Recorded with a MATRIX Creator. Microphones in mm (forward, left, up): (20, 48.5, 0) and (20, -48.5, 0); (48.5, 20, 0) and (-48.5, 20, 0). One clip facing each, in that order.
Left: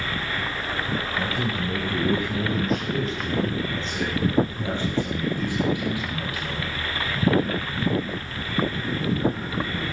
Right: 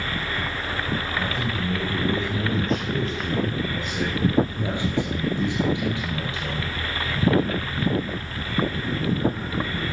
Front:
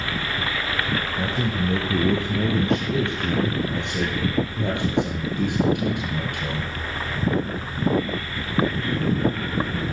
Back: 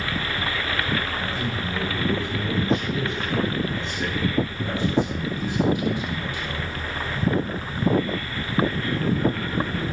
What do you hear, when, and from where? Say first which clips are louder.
1.2 s a man speaking: even, front 3 dB; 20° left, 3 m; by 6.7 s 30° right, 4.5 m